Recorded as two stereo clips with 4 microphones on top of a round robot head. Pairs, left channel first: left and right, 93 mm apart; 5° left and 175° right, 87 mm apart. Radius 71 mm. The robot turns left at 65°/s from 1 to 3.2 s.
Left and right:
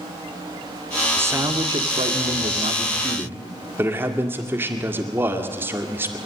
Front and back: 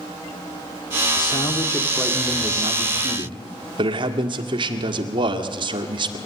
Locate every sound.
1.2 s a man speaking: 25° right, 1.9 m; by 6.2 s 155° right, 1.9 m